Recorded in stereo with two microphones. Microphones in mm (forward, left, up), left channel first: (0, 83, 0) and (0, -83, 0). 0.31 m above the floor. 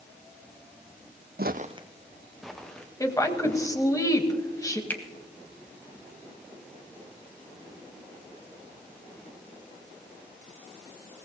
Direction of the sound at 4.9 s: 10° left (ahead or behind).